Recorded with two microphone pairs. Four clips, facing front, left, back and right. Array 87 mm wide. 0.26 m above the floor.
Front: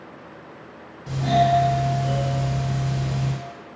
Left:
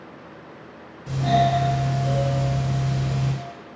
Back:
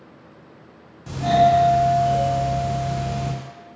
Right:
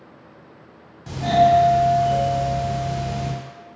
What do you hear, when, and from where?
1.1 s a doorbell: 80° right, 1.4 m